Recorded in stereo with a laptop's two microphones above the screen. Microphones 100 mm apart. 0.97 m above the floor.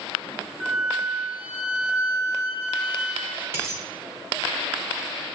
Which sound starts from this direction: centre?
A flute, at 0.6 s.